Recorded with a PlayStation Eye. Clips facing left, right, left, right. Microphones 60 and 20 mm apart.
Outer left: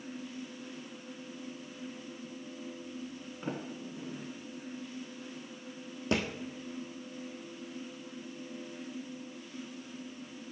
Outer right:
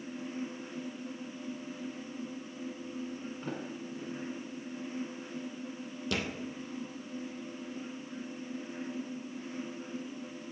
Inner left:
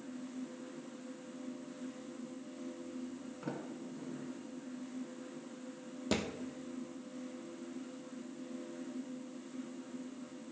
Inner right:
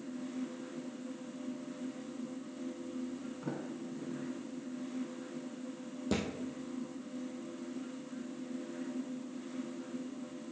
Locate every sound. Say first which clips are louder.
3.4 s a sliding door: outer left 4 dB, even; 10° left (ahead or behind), 1.5 m
6.1 s a thud: outer left 4 dB, even; 30° left (ahead or behind), 1.2 m